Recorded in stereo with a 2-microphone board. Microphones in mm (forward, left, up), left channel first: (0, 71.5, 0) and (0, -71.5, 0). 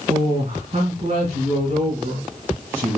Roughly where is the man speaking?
Right.